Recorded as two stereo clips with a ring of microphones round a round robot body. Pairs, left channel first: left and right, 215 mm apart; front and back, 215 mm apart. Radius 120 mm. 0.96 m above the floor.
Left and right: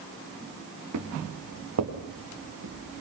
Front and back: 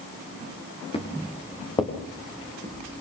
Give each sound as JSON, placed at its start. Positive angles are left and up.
{"t": 0.9, "sound": "footsteps", "azimuth_deg": -65, "distance_m": 6.0}